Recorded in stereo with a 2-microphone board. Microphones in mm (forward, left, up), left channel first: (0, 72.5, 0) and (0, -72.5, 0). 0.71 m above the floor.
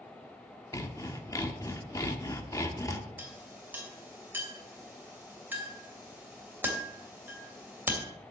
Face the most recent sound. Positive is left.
turn(degrees=-15)  # may be behind; listen again after turning